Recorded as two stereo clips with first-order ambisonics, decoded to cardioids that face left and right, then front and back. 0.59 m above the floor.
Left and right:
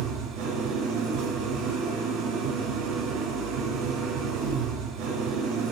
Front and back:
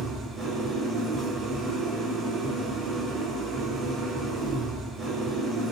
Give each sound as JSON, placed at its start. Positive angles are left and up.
{"t": 0.0, "sound": "an engine running", "azimuth_deg": -100, "distance_m": 6.0}